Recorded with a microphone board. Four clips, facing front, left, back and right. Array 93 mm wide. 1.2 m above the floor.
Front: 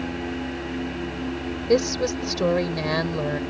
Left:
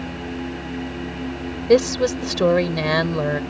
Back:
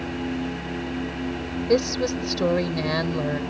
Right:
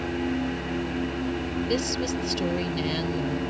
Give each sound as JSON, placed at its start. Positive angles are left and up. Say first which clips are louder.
{"t": 1.7, "sound": "a woman speaking", "louder": "left 14 dB, front 1 dB", "azimuth_deg": 85}